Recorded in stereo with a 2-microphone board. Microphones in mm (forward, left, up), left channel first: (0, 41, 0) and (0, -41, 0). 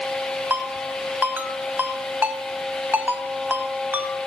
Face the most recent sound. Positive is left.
turn(degrees=-20)  # may be behind; listen again after turning